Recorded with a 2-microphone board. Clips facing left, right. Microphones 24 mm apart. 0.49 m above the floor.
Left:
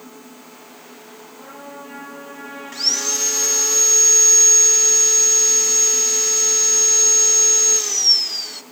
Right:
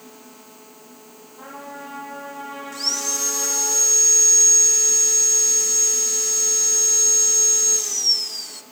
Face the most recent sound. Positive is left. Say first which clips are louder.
# left 4 dB
turn(degrees=30)  # may be behind; listen again after turning